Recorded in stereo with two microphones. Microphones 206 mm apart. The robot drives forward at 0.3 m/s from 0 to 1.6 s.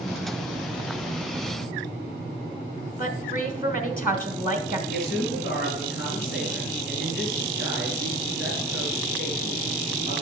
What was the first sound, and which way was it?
A woman speaking, 10° right (ahead or behind).